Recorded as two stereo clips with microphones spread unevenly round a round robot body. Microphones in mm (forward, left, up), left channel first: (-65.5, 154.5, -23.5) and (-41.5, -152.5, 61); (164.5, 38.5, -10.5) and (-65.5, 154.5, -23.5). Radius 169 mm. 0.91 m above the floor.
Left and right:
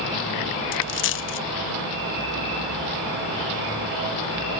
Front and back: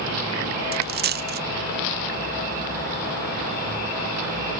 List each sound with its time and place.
0.7 s a dropped coin: 140° left, 0.7 m